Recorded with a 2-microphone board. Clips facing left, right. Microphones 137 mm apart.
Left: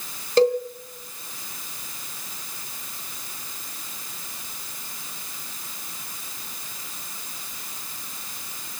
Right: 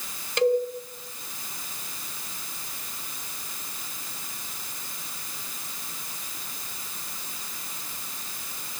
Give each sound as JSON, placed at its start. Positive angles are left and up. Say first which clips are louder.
{"t": 0.4, "sound": "a cowbell", "louder": "left 3 dB", "side_deg": 35, "distance_m": 2.5}